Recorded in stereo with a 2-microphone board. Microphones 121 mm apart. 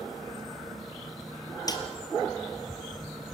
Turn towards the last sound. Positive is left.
turn(degrees=30)  # may be behind; listen again after turning